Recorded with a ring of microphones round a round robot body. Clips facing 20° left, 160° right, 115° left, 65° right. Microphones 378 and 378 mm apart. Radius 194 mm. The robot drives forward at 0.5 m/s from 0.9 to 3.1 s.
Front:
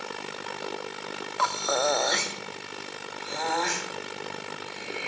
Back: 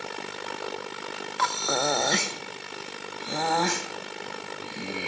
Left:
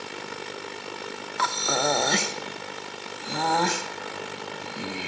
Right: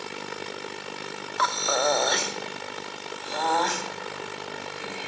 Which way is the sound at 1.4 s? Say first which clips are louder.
Front 1 dB, right 1 dB; 150° left.